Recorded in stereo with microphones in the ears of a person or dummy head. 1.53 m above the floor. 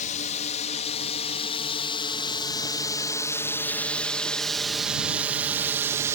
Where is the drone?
40° left (ahead or behind); by 6.2 s 20° right (ahead or behind).